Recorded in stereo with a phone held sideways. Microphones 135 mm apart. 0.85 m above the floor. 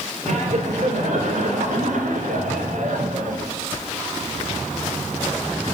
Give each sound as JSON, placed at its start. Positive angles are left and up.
{"t": 0.2, "sound": "laughter", "side_deg": -60, "distance_m": 4.5}